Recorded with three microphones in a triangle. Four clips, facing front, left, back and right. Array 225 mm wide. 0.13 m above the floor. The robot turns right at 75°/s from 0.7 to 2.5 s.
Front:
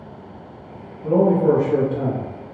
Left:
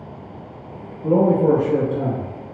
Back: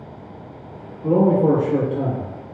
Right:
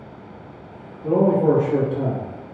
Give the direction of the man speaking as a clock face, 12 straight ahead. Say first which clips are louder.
Left 1 dB, even; 8 o'clock.